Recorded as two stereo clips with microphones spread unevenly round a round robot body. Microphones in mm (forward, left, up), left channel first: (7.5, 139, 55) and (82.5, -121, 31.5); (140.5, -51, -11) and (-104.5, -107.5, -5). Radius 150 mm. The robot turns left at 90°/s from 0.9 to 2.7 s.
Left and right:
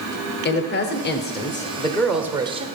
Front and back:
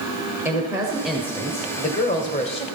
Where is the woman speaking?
120° left, 1.0 m; by 2.7 s 40° right, 1.0 m.